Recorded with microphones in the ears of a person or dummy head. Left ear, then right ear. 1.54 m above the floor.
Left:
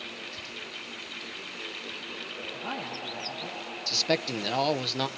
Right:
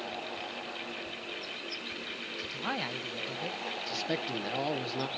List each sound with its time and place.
2.5 s a man speaking: 60° right (ahead or behind), 1.2 m
3.9 s a man speaking: 35° left (ahead or behind), 0.7 m